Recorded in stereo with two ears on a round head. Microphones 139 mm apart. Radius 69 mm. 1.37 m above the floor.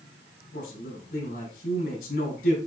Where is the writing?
No writing in this recording.